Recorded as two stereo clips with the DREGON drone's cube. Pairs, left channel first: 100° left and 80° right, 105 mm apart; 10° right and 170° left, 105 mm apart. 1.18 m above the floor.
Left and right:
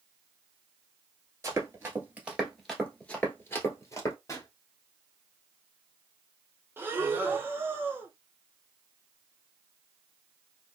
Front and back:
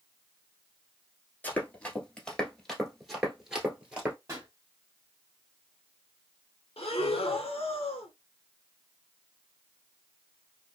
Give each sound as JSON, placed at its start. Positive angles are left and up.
{"t": 1.4, "sound": "running footsteps", "azimuth_deg": -65, "distance_m": 1.3}
{"t": 4.3, "sound": "a pop", "azimuth_deg": 130, "distance_m": 1.1}
{"t": 6.8, "sound": "breathing", "azimuth_deg": -10, "distance_m": 0.6}